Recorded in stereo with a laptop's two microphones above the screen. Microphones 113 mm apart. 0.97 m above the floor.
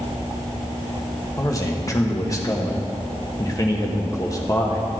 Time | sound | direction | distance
1.4 | a man speaking | 30° left (ahead or behind) | 1.1 m